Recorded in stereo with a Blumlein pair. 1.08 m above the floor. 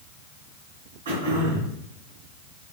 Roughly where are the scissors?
I don't hear scissors.